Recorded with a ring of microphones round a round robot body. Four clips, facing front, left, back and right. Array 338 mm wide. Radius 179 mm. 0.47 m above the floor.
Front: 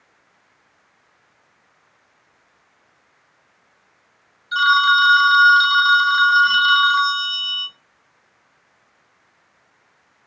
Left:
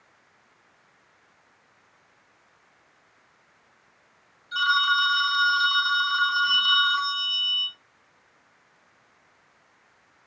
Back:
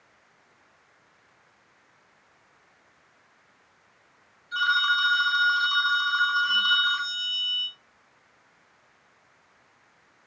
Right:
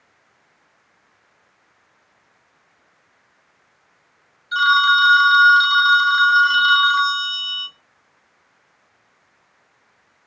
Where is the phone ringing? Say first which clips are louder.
Right 8 dB, front 9 dB; 40° right, 1.4 m.